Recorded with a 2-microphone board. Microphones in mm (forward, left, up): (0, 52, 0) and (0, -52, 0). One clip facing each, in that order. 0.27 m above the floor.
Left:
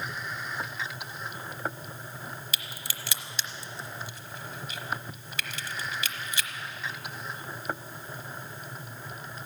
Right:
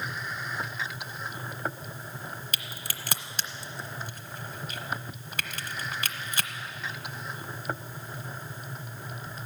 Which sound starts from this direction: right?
A crack, at 2.5 s.